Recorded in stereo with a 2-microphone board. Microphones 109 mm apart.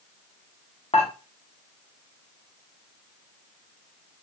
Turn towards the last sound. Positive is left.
turn(degrees=65)  # may be behind; listen again after turning